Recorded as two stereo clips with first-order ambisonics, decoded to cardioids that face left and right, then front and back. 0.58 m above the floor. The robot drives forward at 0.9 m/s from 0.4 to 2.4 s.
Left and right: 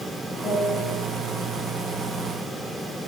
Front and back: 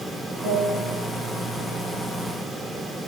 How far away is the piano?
About 4 m.